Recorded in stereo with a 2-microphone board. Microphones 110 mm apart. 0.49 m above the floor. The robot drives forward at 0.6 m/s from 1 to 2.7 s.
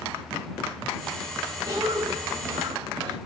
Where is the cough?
30° right (ahead or behind), 3 m; by 3.2 s 35° right (ahead or behind), 2.5 m.